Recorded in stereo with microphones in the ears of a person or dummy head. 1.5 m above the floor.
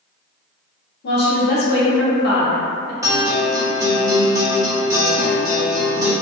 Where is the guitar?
20° right (ahead or behind), 0.6 m.